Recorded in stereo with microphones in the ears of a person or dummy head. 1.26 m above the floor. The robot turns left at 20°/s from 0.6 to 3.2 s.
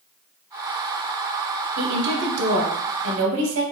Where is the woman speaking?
50° right (ahead or behind), 0.8 m; by 3.6 s 80° right, 0.8 m.